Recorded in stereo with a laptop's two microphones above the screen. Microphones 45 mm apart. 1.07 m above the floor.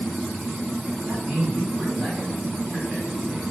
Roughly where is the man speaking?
Centre.